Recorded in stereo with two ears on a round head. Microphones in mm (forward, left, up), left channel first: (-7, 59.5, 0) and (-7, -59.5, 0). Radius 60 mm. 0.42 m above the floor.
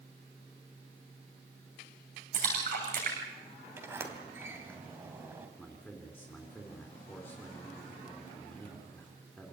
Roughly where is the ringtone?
I don't hear a ringtone.